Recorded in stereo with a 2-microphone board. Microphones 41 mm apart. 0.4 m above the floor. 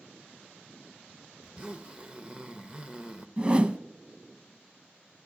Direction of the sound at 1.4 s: 25° right (ahead or behind).